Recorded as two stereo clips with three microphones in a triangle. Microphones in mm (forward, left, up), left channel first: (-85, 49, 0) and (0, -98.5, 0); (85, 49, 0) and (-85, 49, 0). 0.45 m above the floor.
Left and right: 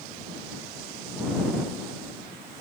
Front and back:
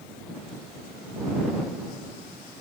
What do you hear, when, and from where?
Only background noise.